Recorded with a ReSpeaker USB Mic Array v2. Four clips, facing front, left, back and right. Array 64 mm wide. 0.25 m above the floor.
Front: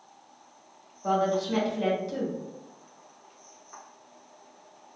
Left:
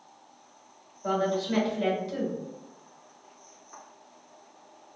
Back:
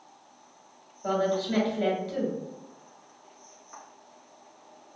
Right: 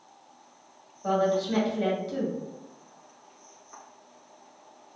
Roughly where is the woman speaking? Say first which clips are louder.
Right 2 dB, front 1 dB; behind.